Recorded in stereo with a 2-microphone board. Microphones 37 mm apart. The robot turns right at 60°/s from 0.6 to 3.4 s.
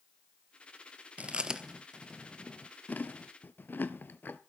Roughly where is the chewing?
Right.